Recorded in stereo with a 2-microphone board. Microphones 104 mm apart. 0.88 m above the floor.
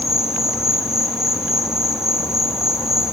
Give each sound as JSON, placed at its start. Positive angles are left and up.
{"t": 0.0, "sound": "an insect", "side_deg": -5, "distance_m": 1.1}